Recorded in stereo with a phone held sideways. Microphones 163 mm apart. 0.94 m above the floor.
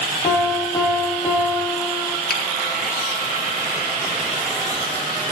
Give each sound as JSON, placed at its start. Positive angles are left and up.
{"t": 0.2, "sound": "a piano", "side_deg": 30, "distance_m": 1.3}
{"t": 2.3, "sound": "a finger snap", "side_deg": 65, "distance_m": 1.9}